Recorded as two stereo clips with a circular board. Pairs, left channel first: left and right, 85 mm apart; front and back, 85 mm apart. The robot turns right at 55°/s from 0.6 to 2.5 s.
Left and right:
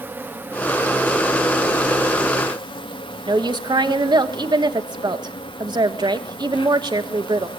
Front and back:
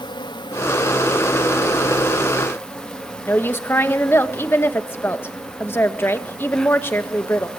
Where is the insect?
25° right, 1.3 m; by 7.6 s 80° left, 1.3 m.